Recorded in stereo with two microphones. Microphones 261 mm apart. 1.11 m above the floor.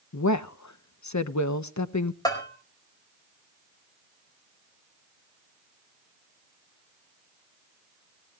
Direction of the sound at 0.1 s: 85° left.